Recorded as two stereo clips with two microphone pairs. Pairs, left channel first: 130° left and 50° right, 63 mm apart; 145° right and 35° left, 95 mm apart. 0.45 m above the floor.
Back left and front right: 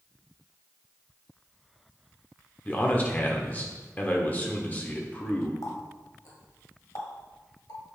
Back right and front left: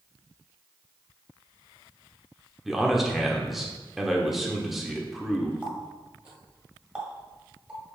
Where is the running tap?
115° left, 1.6 m.